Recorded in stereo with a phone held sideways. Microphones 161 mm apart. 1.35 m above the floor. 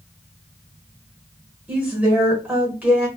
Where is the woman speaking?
10° right (ahead or behind), 1.3 m.